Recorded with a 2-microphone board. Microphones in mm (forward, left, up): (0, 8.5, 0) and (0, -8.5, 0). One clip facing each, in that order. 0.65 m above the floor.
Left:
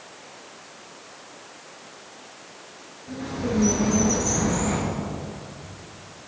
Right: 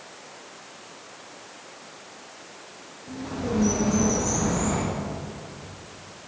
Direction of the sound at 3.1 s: 25° left (ahead or behind).